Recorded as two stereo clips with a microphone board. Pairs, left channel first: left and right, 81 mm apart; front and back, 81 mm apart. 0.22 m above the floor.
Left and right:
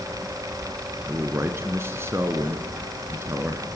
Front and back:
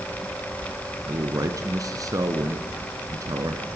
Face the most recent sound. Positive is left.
turn(degrees=-145)